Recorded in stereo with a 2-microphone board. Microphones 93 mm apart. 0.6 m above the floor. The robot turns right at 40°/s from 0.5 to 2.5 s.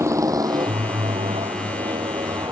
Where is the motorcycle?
30° right (ahead or behind); by 2.5 s 45° right (ahead or behind).